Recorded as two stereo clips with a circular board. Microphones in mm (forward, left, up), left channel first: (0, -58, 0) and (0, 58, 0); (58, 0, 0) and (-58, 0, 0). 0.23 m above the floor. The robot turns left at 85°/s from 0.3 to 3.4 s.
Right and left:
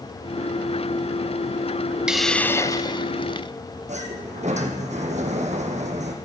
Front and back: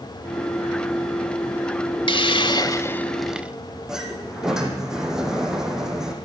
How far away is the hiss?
About 0.6 m.